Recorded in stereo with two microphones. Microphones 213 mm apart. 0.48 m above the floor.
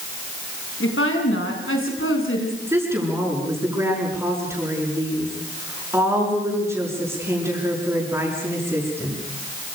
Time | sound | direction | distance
0.8 | a woman speaking | 75° left (ahead or behind) | 5.5 m
2.7 | a woman speaking | 10° right (ahead or behind) | 7.5 m